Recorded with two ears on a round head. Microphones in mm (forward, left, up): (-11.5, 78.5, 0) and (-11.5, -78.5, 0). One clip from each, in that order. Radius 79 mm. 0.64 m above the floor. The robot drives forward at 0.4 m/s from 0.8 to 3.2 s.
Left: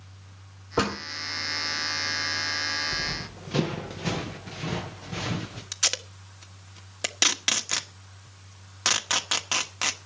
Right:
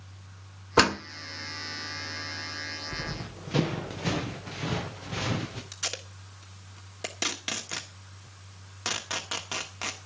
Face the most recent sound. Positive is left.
turn(degrees=40)  # may be behind; listen again after turning